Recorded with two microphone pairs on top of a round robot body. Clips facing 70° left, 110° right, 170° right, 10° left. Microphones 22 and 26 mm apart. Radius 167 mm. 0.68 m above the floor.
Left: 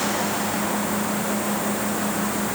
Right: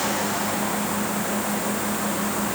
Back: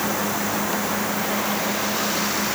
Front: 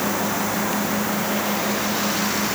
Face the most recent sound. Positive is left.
No sound to turn to.